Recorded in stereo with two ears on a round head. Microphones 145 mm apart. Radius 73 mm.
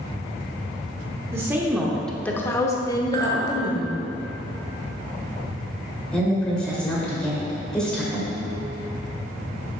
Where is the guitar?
30° right (ahead or behind), 1.8 m.